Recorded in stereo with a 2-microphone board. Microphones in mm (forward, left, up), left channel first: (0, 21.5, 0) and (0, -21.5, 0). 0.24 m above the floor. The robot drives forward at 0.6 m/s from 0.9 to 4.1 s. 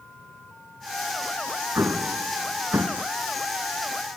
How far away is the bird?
I don't hear a bird.